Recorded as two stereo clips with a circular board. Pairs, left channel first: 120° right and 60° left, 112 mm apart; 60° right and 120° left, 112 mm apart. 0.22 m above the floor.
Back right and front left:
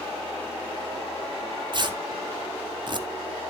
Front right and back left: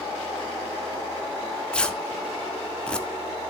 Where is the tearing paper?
20° left, 0.9 m.